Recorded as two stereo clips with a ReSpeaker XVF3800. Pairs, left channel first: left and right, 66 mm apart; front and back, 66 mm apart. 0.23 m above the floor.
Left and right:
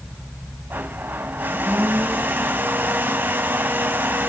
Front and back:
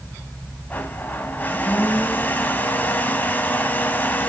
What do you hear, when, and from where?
0.7 s a blender: 50° right, 1.4 m